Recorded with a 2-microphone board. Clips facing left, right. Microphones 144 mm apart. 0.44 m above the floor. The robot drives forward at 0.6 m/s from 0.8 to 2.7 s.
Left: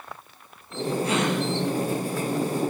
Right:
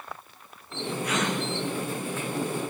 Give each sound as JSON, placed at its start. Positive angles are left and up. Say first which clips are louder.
{"t": 1.0, "sound": "a gasp", "louder": "left 3 dB", "side_deg": 30, "distance_m": 8.0}